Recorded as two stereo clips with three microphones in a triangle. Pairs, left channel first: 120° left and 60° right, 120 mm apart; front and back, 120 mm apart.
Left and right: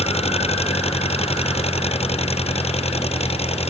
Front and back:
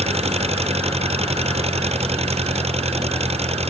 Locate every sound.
0.0 s an engine running: 150° left